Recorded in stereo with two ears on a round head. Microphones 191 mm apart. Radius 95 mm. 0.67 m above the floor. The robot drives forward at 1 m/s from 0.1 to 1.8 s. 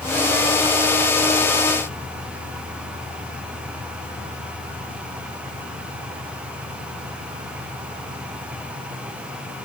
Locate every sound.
Only background noise.